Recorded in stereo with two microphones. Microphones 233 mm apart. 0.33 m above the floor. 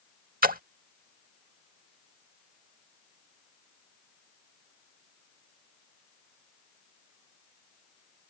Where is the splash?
40° right (ahead or behind).